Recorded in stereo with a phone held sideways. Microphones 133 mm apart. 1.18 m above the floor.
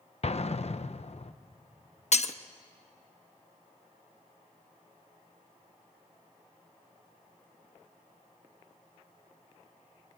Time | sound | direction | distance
0.2 | an explosion | 55° left (ahead or behind) | 0.6 m
2.1 | breaking glass | 55° left (ahead or behind) | 0.8 m